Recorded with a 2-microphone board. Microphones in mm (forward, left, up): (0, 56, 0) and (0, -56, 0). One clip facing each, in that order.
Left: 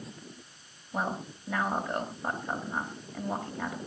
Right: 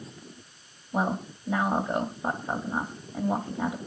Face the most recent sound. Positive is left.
turn(degrees=-20)  # may be behind; listen again after turning